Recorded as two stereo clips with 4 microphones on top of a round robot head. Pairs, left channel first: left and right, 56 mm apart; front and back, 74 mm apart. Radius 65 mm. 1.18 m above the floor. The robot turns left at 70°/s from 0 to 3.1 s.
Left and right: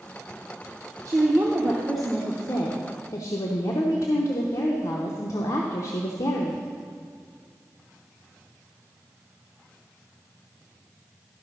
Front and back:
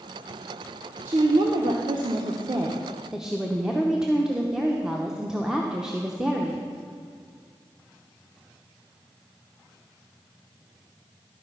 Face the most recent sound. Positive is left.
turn(degrees=100)